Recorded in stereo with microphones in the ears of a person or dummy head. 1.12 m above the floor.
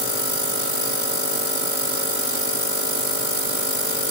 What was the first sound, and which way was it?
Only background noise.